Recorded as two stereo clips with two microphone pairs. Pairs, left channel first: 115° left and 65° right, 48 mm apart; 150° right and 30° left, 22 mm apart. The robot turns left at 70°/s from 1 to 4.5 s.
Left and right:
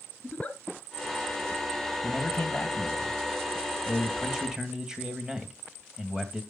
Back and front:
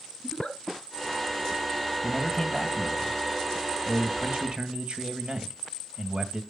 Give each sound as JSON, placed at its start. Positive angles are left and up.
{"t": 0.2, "sound": "a giggle", "azimuth_deg": 170, "distance_m": 2.0}
{"t": 2.0, "sound": "a man speaking", "azimuth_deg": 180, "distance_m": 2.0}